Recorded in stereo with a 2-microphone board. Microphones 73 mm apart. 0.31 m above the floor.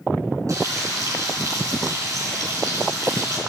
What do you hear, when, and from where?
0.5 s frying: 45° right (ahead or behind), 4 m